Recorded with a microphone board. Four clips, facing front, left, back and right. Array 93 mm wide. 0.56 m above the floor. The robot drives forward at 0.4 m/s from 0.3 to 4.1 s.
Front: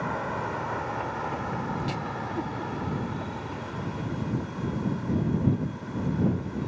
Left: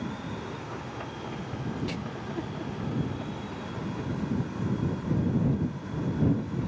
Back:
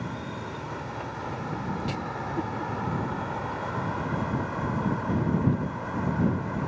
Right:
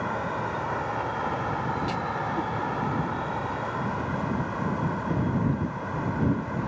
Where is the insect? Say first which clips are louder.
Right 7 dB, front 5 dB; 55° right; by 6.7 s 130° right.